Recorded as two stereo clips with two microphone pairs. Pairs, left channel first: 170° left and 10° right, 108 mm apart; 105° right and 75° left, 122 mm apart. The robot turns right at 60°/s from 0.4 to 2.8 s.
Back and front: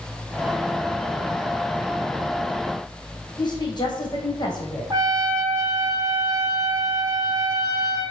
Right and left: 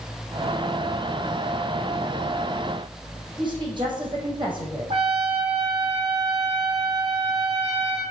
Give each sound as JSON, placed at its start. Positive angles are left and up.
{"t": 3.4, "sound": "a woman speaking", "azimuth_deg": 125, "distance_m": 4.0}
{"t": 4.9, "sound": "a trumpet", "azimuth_deg": 45, "distance_m": 6.0}